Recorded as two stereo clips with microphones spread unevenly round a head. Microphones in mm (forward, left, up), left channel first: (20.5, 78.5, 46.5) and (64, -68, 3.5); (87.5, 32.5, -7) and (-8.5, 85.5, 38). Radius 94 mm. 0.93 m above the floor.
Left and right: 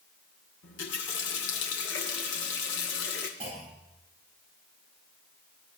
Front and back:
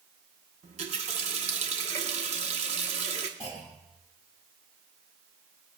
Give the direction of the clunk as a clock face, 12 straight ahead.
4 o'clock.